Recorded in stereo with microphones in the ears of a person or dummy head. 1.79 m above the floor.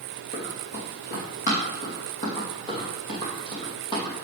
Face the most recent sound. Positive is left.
turn(degrees=20)  # may be behind; listen again after turning